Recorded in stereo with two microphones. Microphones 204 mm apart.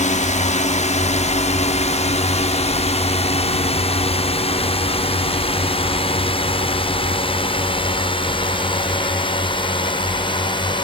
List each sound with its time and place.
0.0 s a drone: 35° left (ahead or behind); by 10.8 s 25° left (ahead or behind)